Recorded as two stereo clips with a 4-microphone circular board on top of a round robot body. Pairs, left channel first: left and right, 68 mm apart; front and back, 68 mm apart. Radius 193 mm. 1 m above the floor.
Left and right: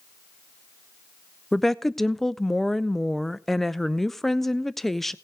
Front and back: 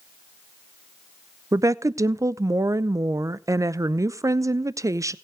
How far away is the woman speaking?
About 0.5 m.